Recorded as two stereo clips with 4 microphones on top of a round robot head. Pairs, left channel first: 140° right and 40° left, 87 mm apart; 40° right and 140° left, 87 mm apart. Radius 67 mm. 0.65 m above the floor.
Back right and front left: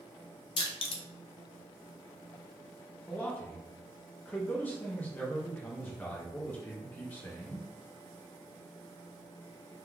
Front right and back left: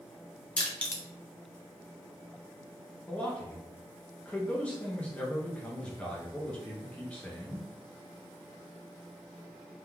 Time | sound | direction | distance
0.6 | crushing | 115° right | 0.5 m
3.1 | a man speaking | 95° right | 0.6 m